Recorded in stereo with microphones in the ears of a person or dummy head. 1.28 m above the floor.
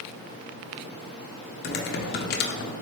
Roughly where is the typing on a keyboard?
Left.